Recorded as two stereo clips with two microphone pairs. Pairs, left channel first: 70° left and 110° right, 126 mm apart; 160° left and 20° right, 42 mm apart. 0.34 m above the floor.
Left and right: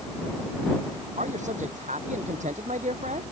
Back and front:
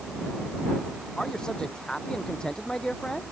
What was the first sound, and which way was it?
A man speaking, 130° right.